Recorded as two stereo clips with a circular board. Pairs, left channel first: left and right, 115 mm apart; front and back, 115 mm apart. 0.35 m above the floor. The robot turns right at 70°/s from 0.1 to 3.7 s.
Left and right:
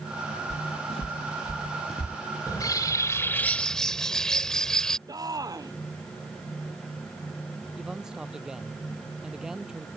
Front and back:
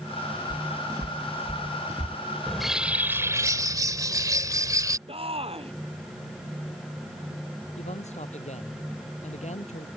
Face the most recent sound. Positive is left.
turn(degrees=-5)